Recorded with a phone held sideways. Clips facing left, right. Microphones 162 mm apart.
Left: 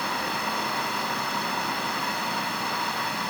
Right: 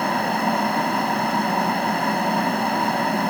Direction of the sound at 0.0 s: 60° right (ahead or behind).